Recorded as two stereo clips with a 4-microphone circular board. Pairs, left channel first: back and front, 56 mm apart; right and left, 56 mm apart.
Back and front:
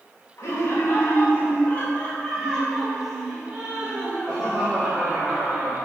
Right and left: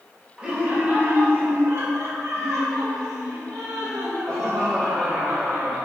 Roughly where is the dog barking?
No dog barking in this recording.